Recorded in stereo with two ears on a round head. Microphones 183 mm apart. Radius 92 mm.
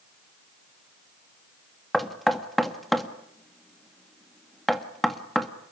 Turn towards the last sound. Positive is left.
turn(degrees=0)  # may be behind; listen again after turning